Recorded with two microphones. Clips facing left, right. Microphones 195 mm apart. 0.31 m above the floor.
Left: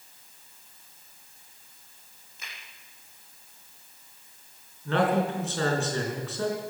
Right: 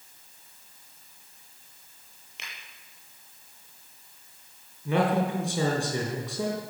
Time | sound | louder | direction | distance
2.4 | a finger snap | right 1 dB | 80° right | 6 m
4.8 | a man speaking | even | 10° right (ahead or behind) | 4.5 m